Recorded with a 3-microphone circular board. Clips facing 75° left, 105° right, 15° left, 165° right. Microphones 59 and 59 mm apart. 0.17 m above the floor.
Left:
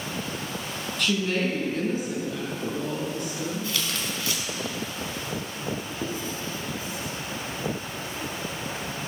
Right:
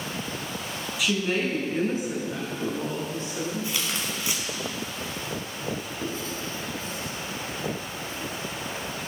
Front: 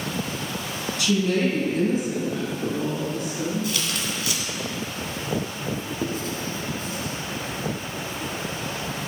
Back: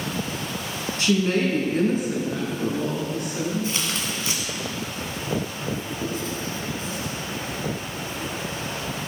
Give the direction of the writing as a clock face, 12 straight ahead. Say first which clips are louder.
Left 1 dB, even; 12 o'clock.